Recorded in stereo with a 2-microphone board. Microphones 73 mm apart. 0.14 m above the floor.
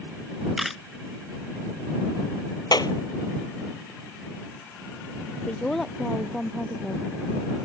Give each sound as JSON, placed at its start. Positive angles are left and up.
{"t": 0.6, "sound": "a camera shutter", "side_deg": 0}
{"t": 2.7, "sound": "a clap", "side_deg": 70}
{"t": 5.5, "sound": "a woman speaking", "side_deg": 10}